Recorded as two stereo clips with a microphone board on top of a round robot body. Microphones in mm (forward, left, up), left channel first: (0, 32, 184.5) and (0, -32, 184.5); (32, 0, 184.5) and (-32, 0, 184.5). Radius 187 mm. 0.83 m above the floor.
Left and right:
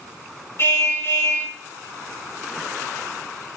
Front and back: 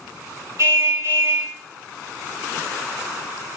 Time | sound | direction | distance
0.6 | a car horn | 140° left | 8 m